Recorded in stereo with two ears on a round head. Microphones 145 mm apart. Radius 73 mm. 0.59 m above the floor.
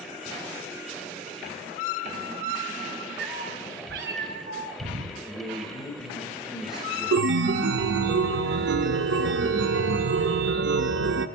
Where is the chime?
80° right, 0.6 m.